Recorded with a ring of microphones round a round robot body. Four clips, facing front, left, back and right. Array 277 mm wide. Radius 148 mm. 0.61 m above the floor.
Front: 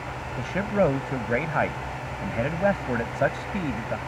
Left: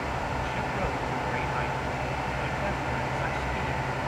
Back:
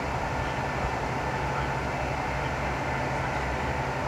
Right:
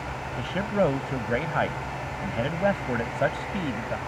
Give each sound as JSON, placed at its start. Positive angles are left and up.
{"t": 0.4, "sound": "a man speaking", "azimuth_deg": -35}